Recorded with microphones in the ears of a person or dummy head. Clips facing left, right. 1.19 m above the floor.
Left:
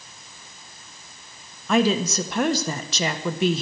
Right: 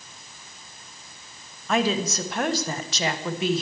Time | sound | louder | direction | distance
1.7 | a woman speaking | left 3 dB | 85° left | 1.2 m